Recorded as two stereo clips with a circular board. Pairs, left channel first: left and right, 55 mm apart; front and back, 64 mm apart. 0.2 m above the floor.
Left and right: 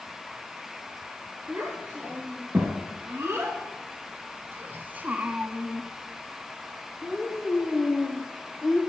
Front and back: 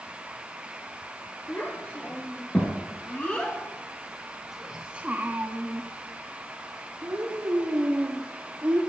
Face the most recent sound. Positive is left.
turn(degrees=155)